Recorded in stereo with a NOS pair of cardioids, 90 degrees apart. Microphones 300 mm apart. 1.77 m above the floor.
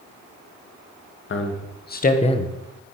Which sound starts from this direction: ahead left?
A man speaking, at 1.3 s.